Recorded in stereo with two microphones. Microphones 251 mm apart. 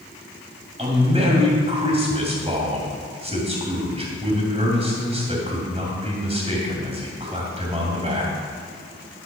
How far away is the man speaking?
About 2.5 m.